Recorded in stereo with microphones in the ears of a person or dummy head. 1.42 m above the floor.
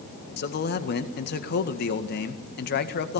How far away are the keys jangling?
No keys jangling in this recording.